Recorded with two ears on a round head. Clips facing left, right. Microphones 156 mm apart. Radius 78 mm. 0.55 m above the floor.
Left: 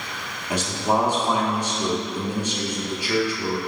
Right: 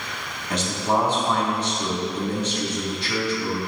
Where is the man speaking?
10° left (ahead or behind), 0.8 m.